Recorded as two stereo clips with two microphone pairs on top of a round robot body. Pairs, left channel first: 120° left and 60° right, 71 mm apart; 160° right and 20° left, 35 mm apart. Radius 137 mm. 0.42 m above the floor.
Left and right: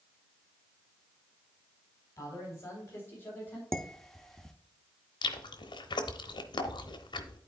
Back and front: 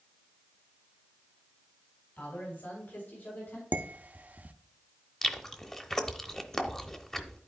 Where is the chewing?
125° left, 0.8 m.